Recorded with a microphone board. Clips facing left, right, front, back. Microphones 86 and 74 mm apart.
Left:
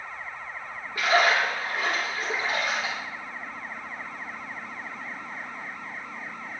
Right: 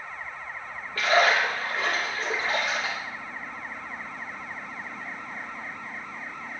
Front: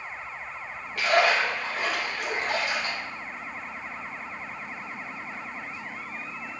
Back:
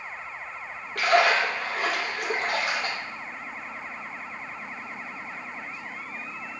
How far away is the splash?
About 3 m.